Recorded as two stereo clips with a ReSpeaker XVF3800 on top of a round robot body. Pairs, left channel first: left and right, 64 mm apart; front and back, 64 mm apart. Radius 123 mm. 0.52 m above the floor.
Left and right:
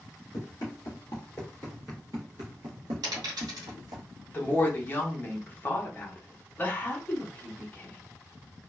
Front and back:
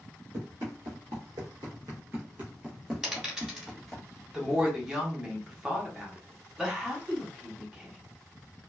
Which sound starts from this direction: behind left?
Running footsteps, at 0.3 s.